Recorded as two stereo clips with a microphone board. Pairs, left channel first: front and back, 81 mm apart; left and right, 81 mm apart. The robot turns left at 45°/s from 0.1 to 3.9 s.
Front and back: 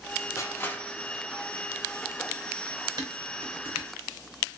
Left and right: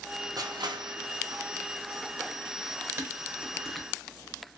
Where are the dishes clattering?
150° right, 0.8 m; by 3.9 s 170° left, 0.8 m.